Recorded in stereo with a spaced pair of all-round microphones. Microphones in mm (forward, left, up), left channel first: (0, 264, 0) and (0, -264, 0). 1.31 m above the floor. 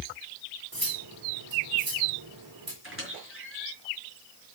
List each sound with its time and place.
0.7 s cutlery clinking: 40° right (ahead or behind), 2 m
2.8 s a squeak: 25° right (ahead or behind), 5 m